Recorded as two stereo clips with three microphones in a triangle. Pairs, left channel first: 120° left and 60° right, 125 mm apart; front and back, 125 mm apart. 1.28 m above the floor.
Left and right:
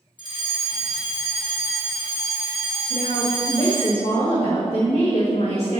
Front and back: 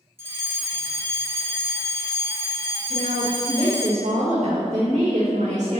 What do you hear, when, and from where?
0.2 s a fire alarm: 120° left, 1.6 m
2.9 s a woman speaking: 155° left, 1.7 m